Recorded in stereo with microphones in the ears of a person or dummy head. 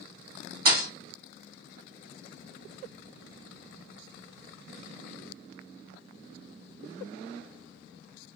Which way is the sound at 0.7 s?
55° right (ahead or behind).